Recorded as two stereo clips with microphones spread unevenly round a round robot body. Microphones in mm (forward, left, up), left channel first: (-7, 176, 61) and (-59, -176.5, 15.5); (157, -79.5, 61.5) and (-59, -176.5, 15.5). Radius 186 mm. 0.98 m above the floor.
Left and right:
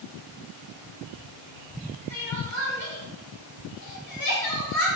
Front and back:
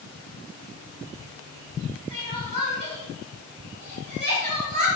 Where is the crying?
125° left, 1.9 m.